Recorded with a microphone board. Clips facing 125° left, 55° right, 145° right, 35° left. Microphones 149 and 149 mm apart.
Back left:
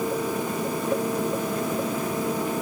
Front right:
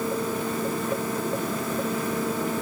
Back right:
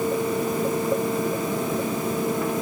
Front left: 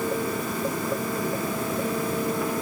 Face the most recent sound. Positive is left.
No sound to turn to.